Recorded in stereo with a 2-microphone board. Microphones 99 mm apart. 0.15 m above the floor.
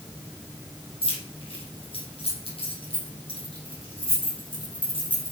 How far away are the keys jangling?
About 4.5 m.